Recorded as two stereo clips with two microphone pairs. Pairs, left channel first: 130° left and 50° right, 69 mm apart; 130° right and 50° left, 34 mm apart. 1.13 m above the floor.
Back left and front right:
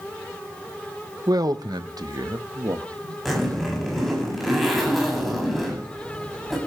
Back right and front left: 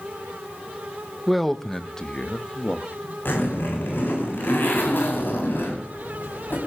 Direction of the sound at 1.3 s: 35° right.